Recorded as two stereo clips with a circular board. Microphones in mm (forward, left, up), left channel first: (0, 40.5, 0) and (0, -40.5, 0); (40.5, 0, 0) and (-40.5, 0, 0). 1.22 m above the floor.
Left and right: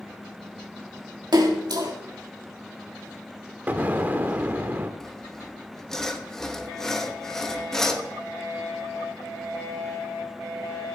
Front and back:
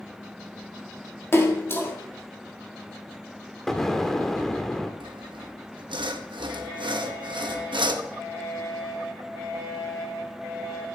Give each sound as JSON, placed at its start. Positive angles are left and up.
{"t": 1.3, "sound": "a splash", "azimuth_deg": -60, "distance_m": 1.9}
{"t": 3.7, "sound": "an explosion", "azimuth_deg": -80, "distance_m": 0.9}
{"t": 5.0, "sound": "sawing", "azimuth_deg": 175, "distance_m": 0.9}